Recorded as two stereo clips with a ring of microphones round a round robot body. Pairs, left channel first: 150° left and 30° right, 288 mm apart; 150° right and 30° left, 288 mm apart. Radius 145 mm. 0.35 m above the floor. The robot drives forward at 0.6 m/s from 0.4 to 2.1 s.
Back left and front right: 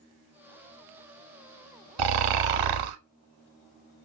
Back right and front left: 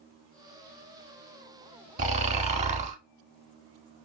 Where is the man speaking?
I don't hear a man speaking.